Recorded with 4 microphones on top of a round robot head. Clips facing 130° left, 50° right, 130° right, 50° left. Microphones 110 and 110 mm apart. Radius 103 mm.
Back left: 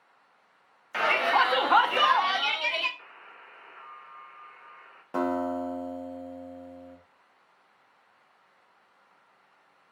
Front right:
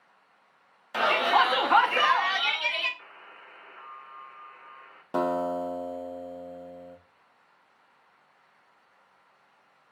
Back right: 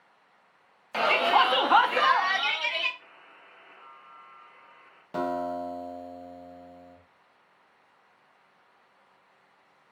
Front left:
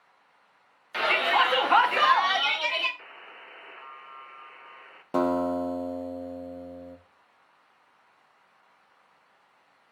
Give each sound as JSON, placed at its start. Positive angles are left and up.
{"t": 0.9, "sound": "a shout", "azimuth_deg": -110, "distance_m": 1.0}
{"t": 3.0, "sound": "a buzzer", "azimuth_deg": 40, "distance_m": 0.5}
{"t": 5.1, "sound": "a guitar", "azimuth_deg": 20, "distance_m": 0.8}